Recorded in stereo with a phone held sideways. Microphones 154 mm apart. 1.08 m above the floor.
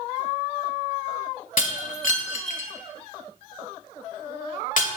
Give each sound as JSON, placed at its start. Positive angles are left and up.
{"t": 1.6, "sound": "breaking glass", "side_deg": 60, "distance_m": 1.4}